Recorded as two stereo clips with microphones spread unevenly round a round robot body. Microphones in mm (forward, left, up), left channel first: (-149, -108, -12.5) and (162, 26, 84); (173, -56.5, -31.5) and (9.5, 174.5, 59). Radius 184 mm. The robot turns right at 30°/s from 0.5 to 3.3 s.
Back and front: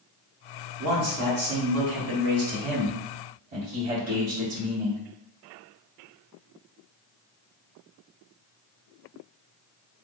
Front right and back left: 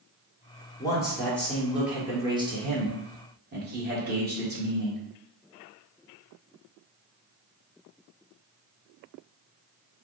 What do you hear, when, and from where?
0.8 s a man speaking: 10° right, 1.4 m; by 5.0 s 65° left, 1.4 m